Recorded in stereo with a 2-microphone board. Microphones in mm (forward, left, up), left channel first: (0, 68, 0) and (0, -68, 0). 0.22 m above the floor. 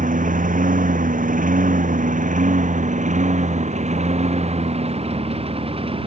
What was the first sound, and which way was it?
A lawn mower, 80° right.